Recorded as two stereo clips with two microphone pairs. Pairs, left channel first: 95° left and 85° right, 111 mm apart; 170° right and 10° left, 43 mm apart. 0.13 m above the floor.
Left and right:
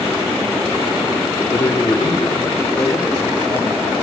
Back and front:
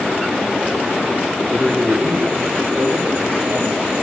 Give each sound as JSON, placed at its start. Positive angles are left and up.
{"t": 1.5, "sound": "a man speaking", "azimuth_deg": 85, "distance_m": 1.1}